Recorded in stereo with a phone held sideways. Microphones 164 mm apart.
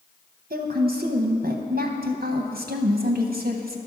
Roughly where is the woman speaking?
Right.